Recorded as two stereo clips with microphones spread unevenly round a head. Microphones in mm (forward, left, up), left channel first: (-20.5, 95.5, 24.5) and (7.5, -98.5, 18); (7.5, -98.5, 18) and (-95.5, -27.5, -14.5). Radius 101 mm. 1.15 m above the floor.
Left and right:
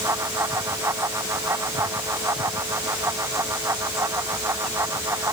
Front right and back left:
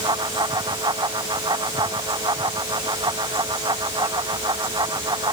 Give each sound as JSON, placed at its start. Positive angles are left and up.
{"t": 0.0, "sound": "a fan", "azimuth_deg": -160}